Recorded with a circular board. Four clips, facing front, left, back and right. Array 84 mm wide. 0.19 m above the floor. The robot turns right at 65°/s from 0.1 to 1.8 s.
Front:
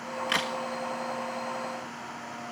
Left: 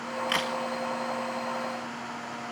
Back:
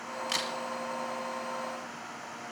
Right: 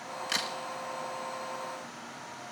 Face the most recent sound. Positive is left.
turn(degrees=145)